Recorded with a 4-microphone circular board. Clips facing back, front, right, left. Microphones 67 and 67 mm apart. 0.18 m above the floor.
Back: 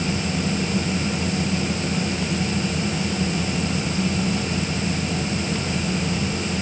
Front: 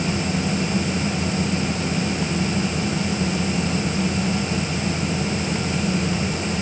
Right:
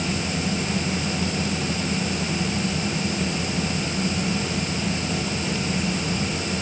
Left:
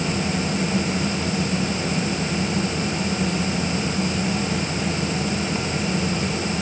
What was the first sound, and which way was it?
Only background noise.